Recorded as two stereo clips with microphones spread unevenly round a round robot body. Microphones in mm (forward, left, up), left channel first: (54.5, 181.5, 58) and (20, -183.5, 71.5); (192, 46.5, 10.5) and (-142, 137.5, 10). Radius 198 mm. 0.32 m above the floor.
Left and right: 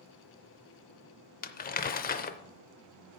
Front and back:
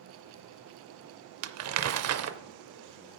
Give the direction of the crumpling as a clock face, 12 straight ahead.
7 o'clock.